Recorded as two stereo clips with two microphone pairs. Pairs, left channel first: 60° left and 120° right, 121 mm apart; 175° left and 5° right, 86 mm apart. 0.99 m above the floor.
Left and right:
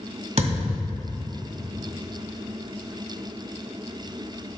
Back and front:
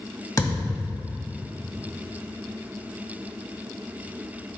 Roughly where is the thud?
Behind right.